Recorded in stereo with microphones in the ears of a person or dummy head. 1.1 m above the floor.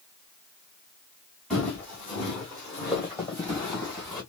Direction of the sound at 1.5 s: Centre (ahead or behind).